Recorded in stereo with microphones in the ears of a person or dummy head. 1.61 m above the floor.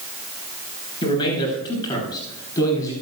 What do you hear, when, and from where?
1.0 s a man speaking: 25° left (ahead or behind), 9 m; by 2.9 s 20° left (ahead or behind), 9.5 m